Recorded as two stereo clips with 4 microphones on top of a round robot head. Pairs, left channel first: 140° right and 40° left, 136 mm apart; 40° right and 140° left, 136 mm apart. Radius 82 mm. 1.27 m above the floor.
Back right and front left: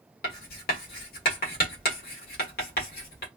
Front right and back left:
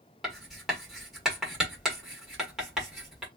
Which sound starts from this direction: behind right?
Writing, at 0.2 s.